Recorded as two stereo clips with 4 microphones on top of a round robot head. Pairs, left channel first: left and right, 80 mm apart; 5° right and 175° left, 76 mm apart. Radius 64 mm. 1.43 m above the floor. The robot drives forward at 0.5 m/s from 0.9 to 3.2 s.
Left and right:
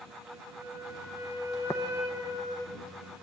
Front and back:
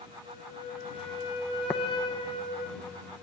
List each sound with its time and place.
0.2 s a flute: 20° right, 2.5 m; by 2.7 s 30° right, 1.5 m
1.7 s tapping: 35° left, 0.6 m; by 1.8 s 40° left, 0.6 m